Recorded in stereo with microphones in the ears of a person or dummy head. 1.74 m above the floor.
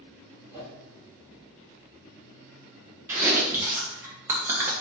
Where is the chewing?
15° right (ahead or behind), 1.0 m.